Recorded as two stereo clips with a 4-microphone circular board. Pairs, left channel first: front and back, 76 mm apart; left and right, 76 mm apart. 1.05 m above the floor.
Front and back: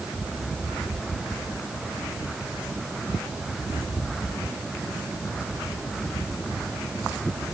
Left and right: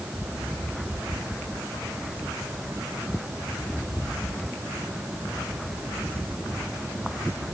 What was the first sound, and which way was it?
Only background noise.